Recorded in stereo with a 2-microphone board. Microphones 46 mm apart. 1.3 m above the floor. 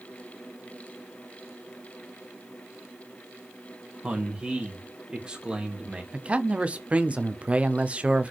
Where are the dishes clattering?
No dishes clattering in this recording.